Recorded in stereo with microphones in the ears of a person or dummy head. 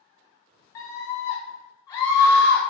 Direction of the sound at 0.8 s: 20° left (ahead or behind).